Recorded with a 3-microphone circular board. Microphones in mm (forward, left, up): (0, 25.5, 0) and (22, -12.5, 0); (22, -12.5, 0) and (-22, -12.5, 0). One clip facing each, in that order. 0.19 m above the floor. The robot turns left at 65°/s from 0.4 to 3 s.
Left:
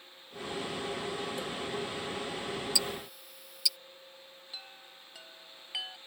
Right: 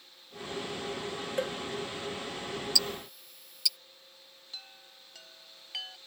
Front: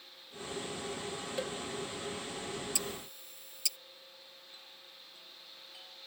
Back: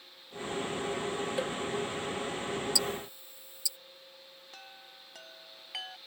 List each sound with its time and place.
1.4 s a cowbell: 105° right; by 1.6 s 115° right
2.8 s ticking: 45° left; by 3.8 s 30° left
4.5 s a chime: 160° right